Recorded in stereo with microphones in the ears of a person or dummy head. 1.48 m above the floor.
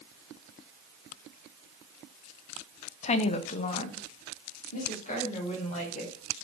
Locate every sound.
3.0 s a woman speaking: 35° left (ahead or behind), 0.7 m; by 6.2 s 40° left (ahead or behind), 5 m